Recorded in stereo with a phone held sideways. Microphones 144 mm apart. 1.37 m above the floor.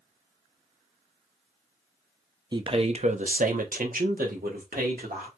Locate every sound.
2.5 s a man speaking: 30° right (ahead or behind), 0.6 m; by 5.3 s 80° right, 1.6 m